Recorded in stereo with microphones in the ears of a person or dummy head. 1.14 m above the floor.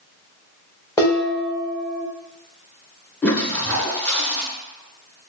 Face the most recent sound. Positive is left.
turn(degrees=10)  # may be behind; listen again after turning